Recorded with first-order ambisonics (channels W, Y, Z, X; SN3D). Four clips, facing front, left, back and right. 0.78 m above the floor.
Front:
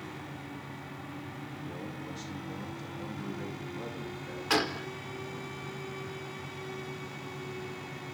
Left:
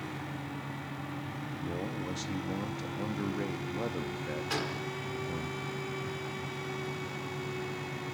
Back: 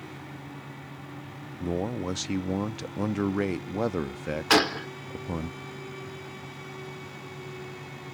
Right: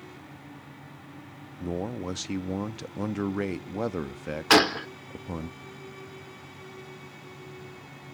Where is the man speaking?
150° right, 0.7 m.